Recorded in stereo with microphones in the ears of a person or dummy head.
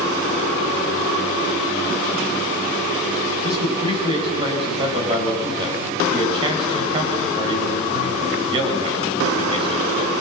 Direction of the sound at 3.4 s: 30° right (ahead or behind).